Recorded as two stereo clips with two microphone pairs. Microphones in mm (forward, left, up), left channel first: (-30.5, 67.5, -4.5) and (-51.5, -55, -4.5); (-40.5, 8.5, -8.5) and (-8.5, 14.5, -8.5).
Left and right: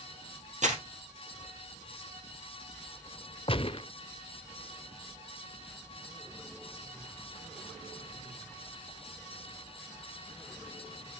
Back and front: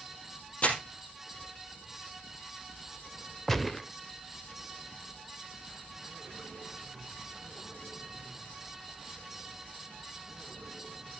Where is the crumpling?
120° right, 3 m.